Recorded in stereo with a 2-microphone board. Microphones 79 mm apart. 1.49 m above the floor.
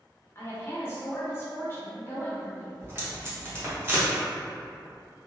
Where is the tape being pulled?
30° right (ahead or behind), 0.8 m.